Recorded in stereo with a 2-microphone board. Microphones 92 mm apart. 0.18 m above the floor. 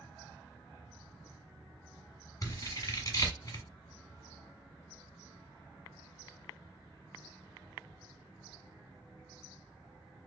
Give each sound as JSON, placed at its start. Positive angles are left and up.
{"t": 2.4, "sound": "scissors", "side_deg": 35, "distance_m": 1.2}